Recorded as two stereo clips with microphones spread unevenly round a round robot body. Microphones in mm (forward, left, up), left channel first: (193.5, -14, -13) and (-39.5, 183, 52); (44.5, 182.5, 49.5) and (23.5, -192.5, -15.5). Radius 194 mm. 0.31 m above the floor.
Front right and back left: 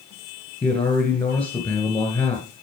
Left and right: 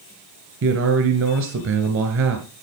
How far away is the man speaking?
About 1.7 m.